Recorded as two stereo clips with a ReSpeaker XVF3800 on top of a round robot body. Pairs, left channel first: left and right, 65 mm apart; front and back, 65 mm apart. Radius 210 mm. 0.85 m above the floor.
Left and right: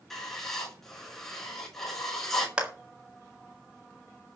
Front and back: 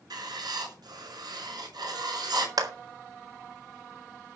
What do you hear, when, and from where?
0.1 s writing: 175° left, 6 m
2.6 s a clap: 165° right, 2.5 m